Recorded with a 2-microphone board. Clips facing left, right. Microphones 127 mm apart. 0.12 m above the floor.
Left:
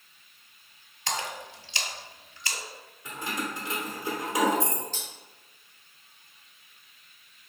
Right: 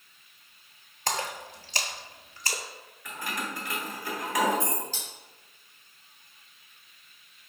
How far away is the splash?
About 0.5 m.